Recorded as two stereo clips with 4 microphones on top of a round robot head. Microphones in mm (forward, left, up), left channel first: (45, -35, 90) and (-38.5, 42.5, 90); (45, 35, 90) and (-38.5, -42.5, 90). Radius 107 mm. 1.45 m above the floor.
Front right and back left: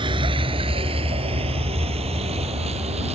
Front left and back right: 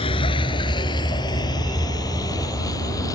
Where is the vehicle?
90° left; by 3.2 s 105° left.